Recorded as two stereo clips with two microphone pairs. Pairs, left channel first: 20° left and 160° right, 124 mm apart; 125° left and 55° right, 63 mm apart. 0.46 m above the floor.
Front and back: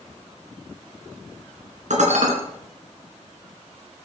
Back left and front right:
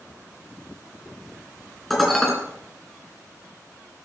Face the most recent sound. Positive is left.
turn(degrees=-150)